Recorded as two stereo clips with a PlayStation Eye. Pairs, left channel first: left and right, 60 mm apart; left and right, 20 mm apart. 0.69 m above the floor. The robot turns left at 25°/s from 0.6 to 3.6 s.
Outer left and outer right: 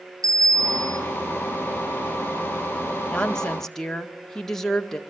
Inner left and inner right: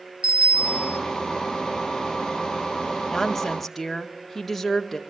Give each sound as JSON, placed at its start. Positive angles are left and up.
{"t": 0.2, "sound": "a bicycle bell", "side_deg": -85, "distance_m": 2.5}
{"t": 3.1, "sound": "a woman speaking", "side_deg": 15, "distance_m": 1.8}